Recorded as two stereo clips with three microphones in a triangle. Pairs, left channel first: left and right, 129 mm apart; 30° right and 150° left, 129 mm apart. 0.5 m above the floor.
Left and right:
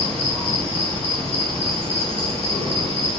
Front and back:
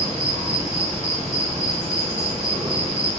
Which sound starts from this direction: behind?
An insect, at 0.0 s.